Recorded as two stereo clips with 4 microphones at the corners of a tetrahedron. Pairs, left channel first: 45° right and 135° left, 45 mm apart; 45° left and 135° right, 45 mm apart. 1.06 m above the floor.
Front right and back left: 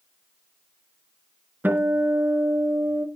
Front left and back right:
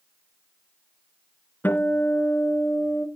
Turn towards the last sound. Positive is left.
turn(degrees=90)